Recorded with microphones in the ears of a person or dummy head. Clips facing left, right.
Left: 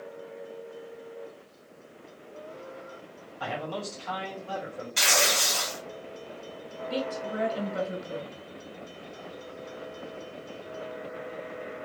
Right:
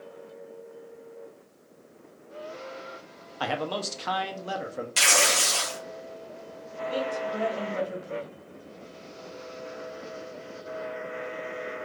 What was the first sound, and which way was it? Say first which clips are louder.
A man speaking: right 4 dB; 70° right (ahead or behind).